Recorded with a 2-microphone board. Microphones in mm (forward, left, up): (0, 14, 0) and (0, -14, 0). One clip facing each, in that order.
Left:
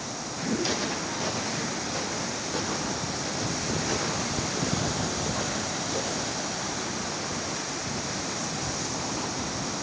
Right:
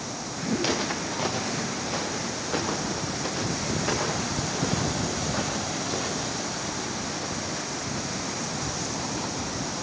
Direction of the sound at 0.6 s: 55° right (ahead or behind).